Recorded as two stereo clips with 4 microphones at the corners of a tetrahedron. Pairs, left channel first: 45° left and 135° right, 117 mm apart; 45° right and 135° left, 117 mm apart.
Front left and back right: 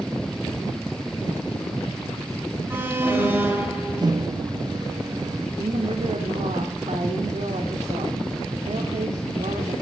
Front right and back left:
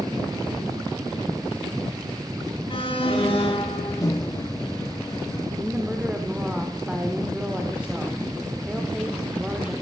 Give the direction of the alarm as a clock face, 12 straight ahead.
2 o'clock.